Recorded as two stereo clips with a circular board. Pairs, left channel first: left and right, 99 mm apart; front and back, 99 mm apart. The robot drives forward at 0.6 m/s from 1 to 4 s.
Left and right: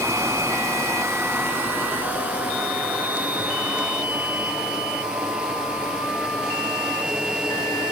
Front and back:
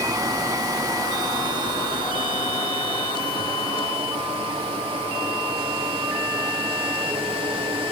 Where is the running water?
145° right, 1.0 m; by 7.9 s 170° right, 2.5 m.